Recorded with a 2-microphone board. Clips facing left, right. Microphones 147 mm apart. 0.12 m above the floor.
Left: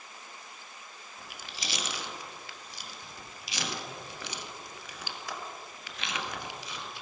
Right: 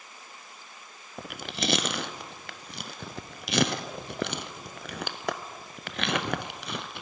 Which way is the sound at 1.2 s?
65° right (ahead or behind).